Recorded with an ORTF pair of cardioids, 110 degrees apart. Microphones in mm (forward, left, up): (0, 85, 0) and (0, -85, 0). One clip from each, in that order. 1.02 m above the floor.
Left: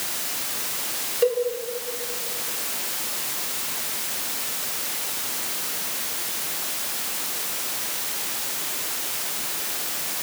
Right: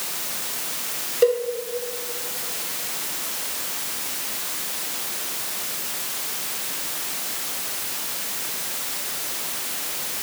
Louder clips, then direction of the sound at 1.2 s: Right 3 dB; 25° right.